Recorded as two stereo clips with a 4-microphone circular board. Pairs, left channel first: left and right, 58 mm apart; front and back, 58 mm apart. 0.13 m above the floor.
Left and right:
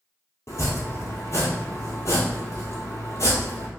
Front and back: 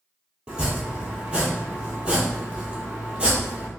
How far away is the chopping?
About 1.0 m.